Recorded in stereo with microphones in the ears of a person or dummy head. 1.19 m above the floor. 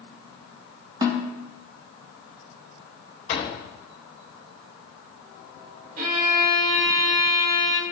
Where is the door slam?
35° left (ahead or behind), 3.5 m.